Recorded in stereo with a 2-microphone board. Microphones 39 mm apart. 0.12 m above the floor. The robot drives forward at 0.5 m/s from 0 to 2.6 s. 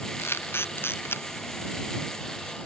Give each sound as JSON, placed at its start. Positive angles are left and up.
{"t": 0.2, "sound": "a camera shutter", "side_deg": 75}